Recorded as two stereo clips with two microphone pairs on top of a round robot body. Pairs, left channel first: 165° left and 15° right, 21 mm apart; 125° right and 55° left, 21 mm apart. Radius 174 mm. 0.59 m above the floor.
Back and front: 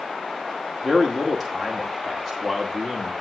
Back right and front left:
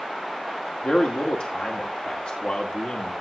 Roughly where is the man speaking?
Behind right.